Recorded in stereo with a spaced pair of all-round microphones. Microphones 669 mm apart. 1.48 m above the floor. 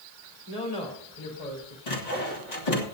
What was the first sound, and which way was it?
A woman speaking, 65° left (ahead or behind).